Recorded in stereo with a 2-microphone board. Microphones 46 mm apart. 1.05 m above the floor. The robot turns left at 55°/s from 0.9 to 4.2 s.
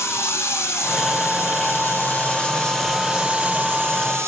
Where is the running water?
110° left, 5 m; by 4.3 s 70° right, 5 m.